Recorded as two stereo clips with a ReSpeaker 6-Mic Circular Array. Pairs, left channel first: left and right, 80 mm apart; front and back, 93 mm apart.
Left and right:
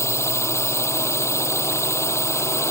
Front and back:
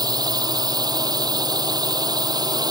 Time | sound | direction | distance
0.0 | a drone | 140° left | ?